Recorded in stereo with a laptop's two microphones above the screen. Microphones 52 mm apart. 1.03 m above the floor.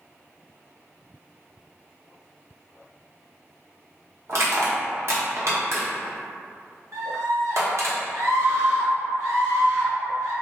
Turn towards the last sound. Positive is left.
turn(degrees=-70)  # may be behind; listen again after turning